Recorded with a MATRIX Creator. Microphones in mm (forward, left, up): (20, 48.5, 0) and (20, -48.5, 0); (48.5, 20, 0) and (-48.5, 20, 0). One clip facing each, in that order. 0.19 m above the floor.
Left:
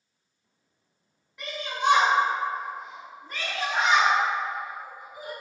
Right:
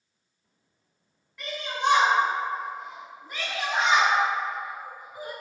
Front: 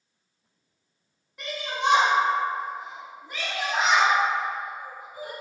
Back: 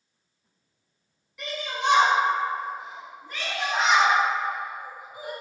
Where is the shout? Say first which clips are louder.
Even, front 1 dB; 30° left, 1.5 m; by 5.3 s 120° right, 1.5 m.